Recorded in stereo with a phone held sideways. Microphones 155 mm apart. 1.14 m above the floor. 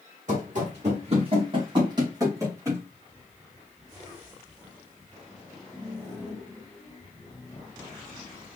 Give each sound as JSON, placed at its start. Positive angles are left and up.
{"t": 0.3, "sound": "running footsteps", "side_deg": -60, "distance_m": 3.0}